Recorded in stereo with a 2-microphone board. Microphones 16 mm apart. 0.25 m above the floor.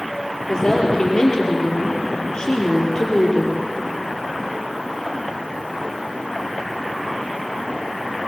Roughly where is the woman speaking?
Left.